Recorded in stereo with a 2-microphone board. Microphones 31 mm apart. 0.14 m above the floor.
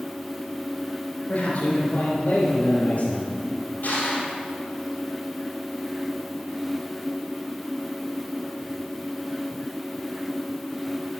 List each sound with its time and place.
1.3 s a man speaking: 50° left (ahead or behind), 2.5 m
3.8 s crushing: 65° left (ahead or behind), 2.5 m